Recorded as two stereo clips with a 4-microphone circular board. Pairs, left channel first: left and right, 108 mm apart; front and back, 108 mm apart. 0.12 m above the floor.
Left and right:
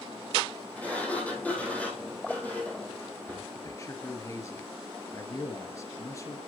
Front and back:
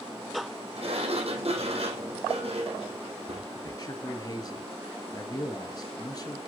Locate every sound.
0.8 s a sliding door: 165° left, 5 m
3.5 s a man speaking: 40° left, 2.5 m